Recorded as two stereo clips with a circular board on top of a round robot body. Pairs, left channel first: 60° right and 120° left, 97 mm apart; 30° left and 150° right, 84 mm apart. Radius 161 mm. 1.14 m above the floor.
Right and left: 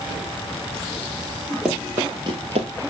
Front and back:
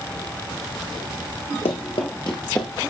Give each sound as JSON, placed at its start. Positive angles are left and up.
{"t": 1.6, "sound": "running footsteps", "azimuth_deg": 35, "distance_m": 1.5}